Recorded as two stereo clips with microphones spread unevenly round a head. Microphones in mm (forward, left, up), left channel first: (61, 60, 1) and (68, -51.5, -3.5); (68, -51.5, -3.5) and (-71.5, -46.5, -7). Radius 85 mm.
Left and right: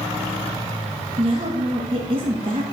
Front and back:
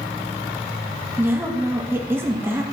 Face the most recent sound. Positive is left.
turn(degrees=-115)